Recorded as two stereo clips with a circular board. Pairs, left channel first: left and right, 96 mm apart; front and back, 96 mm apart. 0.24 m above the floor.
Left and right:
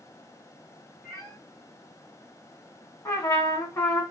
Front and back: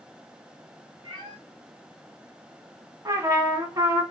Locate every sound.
1.0 s a cat meowing: 155° left, 1.8 m
3.0 s a trumpet: 140° left, 1.0 m